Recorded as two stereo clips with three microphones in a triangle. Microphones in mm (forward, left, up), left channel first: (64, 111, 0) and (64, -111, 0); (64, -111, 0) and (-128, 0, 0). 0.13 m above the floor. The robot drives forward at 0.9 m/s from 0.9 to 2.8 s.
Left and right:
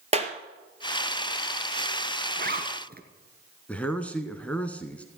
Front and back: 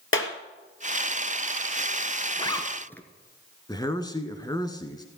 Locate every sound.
0.1 s a clap: 30° right, 1.8 m
2.4 s a zipper: 90° right, 1.7 m; by 3.0 s 110° right, 1.8 m
3.7 s a man speaking: 15° left, 1.1 m